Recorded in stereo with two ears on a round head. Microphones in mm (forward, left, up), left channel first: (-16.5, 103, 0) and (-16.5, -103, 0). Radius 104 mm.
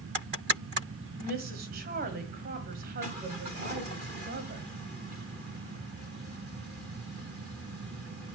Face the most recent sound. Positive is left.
turn(degrees=-40)  # may be behind; listen again after turning